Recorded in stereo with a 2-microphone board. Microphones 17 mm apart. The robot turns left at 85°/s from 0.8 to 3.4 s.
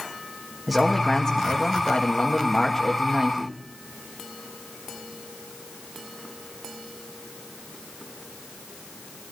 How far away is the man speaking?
About 1.4 m.